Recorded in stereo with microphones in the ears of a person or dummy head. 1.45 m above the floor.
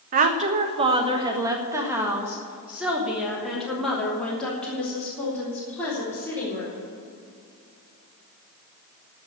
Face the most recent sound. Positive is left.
turn(degrees=10)  # may be behind; listen again after turning